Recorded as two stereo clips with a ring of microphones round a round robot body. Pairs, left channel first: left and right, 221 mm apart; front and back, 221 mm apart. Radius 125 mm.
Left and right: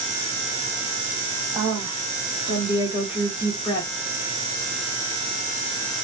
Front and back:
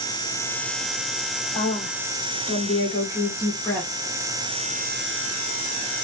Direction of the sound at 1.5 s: 45° right.